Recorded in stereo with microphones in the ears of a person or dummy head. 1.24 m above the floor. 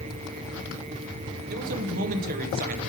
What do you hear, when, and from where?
1.5 s a man speaking: 45° right (ahead or behind), 0.6 m